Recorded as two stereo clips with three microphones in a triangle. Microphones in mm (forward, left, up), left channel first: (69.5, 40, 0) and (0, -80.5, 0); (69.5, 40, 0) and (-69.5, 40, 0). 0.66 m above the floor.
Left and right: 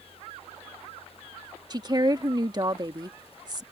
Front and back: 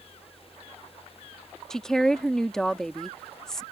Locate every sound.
1.7 s a woman speaking: 85° right